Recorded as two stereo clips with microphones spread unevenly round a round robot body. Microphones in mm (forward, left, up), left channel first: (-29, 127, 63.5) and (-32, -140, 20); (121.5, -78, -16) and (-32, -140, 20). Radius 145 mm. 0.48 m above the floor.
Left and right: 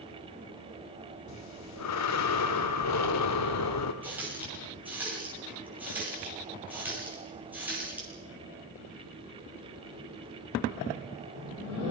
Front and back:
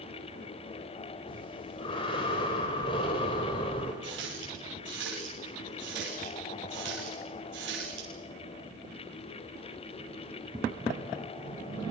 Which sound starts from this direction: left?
Breathing, at 1.3 s.